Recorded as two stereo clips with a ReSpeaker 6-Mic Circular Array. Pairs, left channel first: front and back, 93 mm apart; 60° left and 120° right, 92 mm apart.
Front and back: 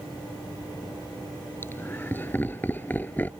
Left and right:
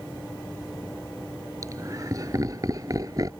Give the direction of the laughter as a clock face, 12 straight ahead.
2 o'clock.